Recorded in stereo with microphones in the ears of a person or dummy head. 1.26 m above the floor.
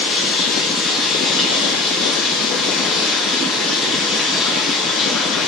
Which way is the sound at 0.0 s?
5° left (ahead or behind).